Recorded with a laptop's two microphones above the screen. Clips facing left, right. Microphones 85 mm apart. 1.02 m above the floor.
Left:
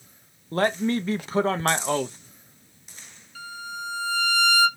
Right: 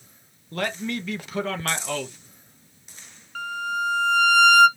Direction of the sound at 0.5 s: 35° left (ahead or behind).